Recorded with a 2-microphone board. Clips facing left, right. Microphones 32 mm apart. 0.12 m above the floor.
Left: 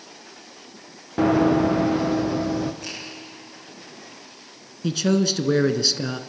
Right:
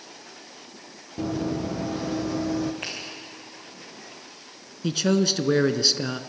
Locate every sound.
1.2 s running footsteps: 85° left, 0.8 m; by 2.7 s 15° left (ahead or behind), 1.7 m
2.8 s a finger snap: 55° right (ahead or behind), 8.5 m
4.8 s a man speaking: 5° right (ahead or behind), 1.1 m